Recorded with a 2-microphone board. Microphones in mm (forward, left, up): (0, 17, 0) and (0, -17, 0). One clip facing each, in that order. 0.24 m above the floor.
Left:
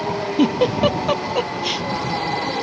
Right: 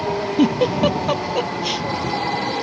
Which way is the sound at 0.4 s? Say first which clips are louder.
Even; 10° left (ahead or behind).